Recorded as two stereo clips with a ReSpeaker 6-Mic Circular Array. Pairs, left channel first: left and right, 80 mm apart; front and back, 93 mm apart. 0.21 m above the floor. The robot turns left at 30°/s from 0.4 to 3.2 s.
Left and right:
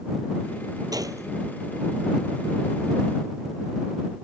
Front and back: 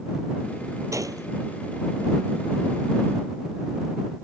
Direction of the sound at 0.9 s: 125° right.